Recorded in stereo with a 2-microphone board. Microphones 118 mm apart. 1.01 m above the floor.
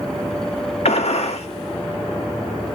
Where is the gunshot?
65° left (ahead or behind), 0.6 m.